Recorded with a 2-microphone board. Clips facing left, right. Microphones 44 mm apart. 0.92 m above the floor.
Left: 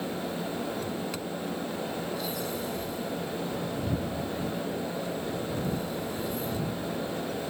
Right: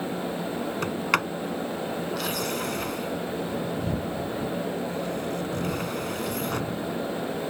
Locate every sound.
0.8 s a sliding door: 80° right